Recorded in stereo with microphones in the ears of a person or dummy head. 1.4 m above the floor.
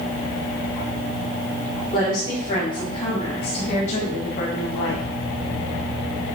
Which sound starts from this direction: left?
A woman speaking, at 1.9 s.